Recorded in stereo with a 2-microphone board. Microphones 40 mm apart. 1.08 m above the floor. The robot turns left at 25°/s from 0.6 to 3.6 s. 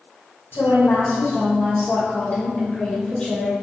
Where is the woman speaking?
95° left, 1.5 m; by 3.5 s 25° left, 1.5 m.